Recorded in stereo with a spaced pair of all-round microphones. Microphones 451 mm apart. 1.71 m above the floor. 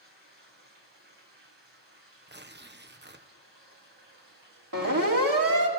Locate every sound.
0.0 s running water: 75° right (ahead or behind), 7 m
2.3 s tearing paper: 25° right (ahead or behind), 1.2 m
4.7 s a siren: 45° right (ahead or behind), 4 m